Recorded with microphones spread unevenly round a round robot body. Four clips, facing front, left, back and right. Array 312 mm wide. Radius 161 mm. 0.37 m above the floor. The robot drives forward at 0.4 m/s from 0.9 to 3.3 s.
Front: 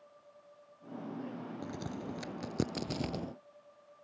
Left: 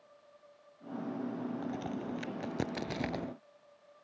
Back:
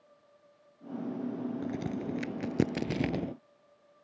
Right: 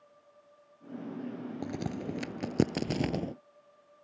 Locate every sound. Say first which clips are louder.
1.6 s a crack: right 2 dB, back 6 dB; 125° right; by 3.3 s 135° right